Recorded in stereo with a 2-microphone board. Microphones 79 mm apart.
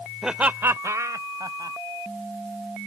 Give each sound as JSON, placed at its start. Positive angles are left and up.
{"t": 0.2, "sound": "laughter", "side_deg": -5}